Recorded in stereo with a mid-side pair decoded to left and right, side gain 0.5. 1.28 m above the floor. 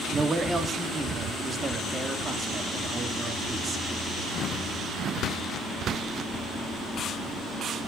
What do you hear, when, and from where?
0.1 s a man speaking: 25° right, 2.5 m